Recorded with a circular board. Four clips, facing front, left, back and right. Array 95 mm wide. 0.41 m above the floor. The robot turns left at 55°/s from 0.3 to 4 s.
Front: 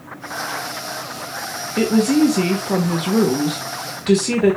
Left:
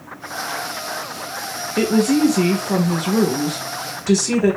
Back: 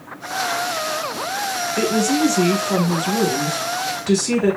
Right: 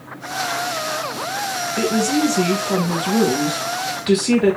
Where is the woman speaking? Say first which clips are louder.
Left 3 dB, front 4 dB; 55° left, 1.2 m; by 4.6 s 70° right, 1.2 m.